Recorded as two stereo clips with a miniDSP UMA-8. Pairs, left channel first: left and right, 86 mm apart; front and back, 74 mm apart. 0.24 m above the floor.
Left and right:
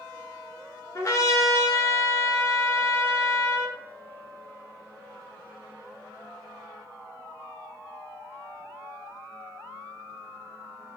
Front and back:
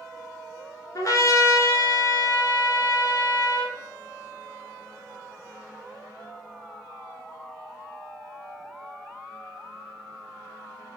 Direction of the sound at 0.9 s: 40° left.